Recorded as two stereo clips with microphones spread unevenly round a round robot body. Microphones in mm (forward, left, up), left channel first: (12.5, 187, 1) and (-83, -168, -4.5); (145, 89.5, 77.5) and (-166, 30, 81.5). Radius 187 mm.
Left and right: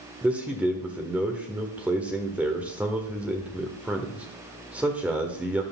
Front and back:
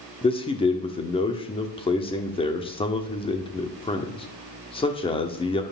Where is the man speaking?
25° right, 1.5 m.